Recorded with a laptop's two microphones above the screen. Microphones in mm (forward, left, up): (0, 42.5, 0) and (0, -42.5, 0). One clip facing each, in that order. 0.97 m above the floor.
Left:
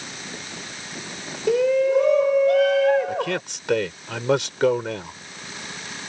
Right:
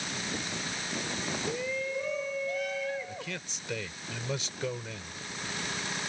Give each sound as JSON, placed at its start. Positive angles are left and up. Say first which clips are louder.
{"t": 1.5, "sound": "a shout", "louder": "left 19 dB", "side_deg": 75}
{"t": 3.1, "sound": "a man speaking", "louder": "left 15 dB", "side_deg": 75}